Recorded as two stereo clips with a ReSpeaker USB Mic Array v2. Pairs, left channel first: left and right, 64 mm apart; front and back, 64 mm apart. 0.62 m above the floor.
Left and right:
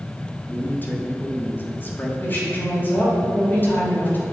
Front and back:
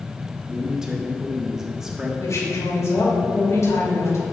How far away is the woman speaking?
About 2.5 m.